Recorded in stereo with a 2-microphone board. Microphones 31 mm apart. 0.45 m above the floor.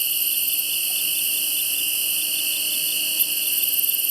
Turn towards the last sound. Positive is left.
turn(degrees=0)  # may be behind; listen again after turning